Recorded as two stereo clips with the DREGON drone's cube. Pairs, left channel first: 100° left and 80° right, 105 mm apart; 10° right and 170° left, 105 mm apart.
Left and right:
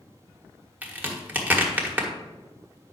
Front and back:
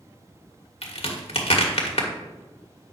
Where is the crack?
5° right, 1.5 m.